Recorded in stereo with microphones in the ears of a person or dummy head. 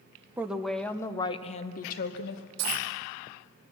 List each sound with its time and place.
0.4 s a woman speaking: 10° right (ahead or behind), 0.9 m; by 2.4 s 65° left (ahead or behind), 1.0 m
2.6 s a dropped coin: 55° right (ahead or behind), 2 m